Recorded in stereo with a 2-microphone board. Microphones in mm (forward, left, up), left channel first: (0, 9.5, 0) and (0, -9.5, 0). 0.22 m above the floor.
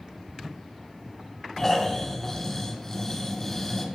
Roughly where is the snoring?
Left.